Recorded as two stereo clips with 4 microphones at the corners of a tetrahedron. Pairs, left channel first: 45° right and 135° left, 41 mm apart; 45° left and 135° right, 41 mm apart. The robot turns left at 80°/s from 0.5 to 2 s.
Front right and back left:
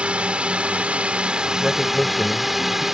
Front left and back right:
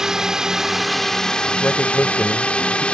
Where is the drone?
160° left; by 3.0 s 65° left.